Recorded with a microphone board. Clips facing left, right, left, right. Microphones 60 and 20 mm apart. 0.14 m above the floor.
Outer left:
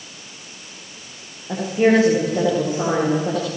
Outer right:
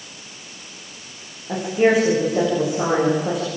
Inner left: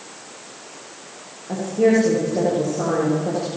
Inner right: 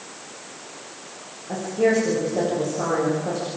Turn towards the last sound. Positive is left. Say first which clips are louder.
# outer left 1 dB, inner left 3 dB
turn(degrees=-5)  # may be behind; listen again after turning